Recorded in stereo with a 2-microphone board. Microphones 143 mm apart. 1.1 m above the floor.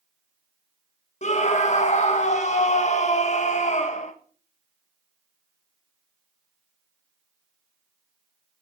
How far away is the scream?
About 1.4 m.